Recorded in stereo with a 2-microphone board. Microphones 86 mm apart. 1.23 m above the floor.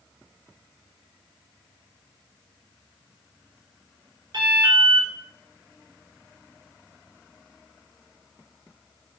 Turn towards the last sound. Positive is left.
turn(degrees=-55)  # may be behind; listen again after turning